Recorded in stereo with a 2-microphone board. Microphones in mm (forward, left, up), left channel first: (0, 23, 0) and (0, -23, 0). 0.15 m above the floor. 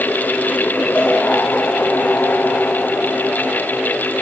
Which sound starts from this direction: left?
A cowbell, at 0.9 s.